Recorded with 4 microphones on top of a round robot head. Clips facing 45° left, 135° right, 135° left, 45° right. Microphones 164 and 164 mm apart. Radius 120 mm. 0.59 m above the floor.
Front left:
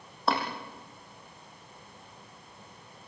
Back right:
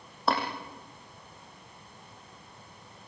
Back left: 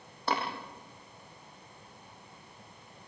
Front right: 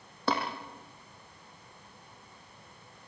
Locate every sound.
0.3 s tapping: 45° right, 7.5 m